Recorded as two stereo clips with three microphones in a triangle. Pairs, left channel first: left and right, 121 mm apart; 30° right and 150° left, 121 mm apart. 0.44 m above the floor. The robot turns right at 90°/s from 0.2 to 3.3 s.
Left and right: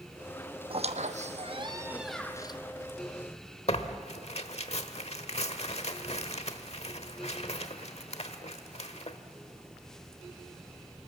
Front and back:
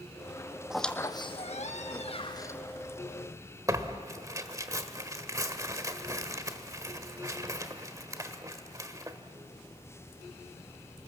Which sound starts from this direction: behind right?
A squeak, at 0.7 s.